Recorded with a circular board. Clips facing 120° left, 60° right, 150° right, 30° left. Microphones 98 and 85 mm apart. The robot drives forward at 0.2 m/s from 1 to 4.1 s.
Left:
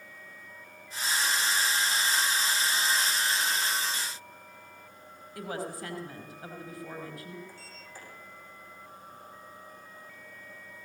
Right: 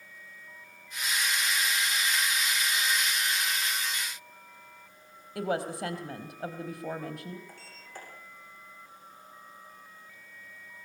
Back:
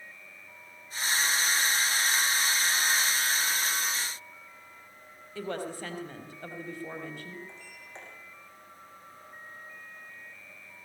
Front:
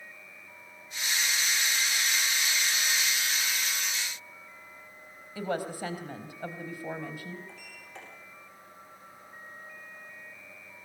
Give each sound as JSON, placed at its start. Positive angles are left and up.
{"t": 5.3, "sound": "a woman speaking", "azimuth_deg": -50, "distance_m": 4.0}
{"t": 7.5, "sound": "a sliding door", "azimuth_deg": -90, "distance_m": 8.5}